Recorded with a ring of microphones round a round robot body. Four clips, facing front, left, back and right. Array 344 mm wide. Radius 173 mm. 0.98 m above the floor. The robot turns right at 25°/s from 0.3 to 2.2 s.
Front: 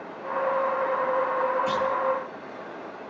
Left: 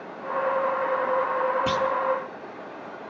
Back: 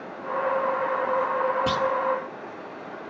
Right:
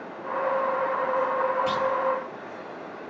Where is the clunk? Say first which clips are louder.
Left 1 dB, back 1 dB; 140° left, 1.5 m; by 1.9 s 145° left, 1.5 m.